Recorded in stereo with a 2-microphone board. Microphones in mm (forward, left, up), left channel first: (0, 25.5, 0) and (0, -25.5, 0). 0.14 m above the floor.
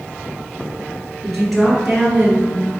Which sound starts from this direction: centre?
A woman speaking, at 1.2 s.